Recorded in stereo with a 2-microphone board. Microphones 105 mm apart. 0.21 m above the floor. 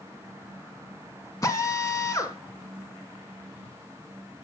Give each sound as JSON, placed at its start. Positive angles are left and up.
{"t": 1.4, "sound": "a drill", "side_deg": 35, "distance_m": 1.3}